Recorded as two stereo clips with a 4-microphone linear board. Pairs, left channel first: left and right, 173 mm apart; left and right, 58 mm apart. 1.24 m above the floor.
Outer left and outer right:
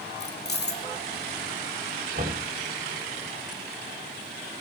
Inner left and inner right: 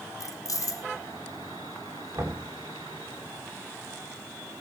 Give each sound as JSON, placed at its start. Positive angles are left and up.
{"t": 0.2, "sound": "keys jangling", "side_deg": 70, "distance_m": 0.9}
{"t": 2.1, "sound": "knocking", "side_deg": -60, "distance_m": 6.0}